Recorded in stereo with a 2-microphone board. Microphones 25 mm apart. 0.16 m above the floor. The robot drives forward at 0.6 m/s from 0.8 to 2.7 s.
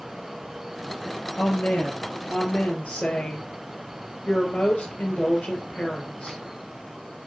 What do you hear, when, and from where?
1.4 s a woman speaking: 65° left (ahead or behind), 4 m